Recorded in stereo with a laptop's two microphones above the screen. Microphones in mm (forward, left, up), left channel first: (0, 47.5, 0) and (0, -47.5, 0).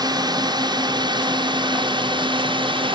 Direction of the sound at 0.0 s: 45° right (ahead or behind).